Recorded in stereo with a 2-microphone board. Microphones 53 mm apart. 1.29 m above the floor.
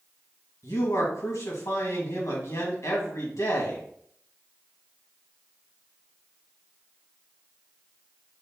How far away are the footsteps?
I don't hear footsteps.